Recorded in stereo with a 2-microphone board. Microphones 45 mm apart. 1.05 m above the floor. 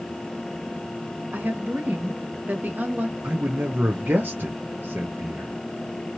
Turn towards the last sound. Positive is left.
turn(degrees=-55)  # may be behind; listen again after turning